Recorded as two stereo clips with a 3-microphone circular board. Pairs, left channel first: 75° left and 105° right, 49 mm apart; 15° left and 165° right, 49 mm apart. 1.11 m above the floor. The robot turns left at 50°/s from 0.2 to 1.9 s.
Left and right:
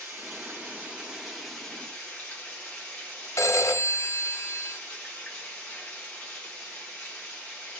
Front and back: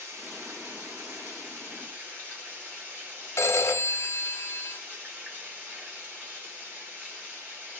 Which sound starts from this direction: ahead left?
A phone ringing, at 3.4 s.